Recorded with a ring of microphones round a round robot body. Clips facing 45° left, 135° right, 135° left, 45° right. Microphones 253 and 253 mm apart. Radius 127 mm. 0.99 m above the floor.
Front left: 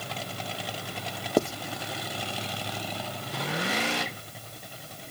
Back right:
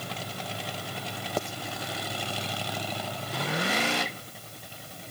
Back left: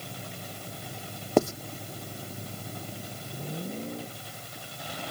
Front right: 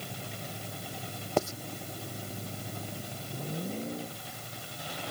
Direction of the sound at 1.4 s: 95° left.